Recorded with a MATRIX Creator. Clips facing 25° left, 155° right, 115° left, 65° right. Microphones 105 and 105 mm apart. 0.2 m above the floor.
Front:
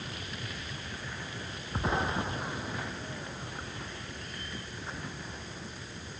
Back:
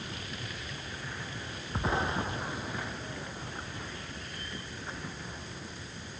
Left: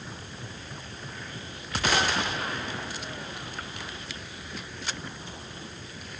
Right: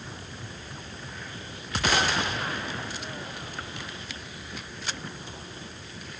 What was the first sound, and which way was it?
Only background noise.